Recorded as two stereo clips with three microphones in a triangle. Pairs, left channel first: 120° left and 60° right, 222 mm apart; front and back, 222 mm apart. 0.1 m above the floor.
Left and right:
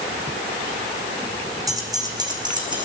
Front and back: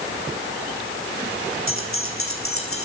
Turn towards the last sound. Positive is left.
turn(degrees=10)